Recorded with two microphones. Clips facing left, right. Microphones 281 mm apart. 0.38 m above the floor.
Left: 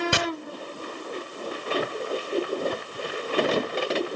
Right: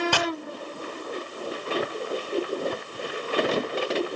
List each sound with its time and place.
0.1 s chopping: 20° left (ahead or behind), 1.6 m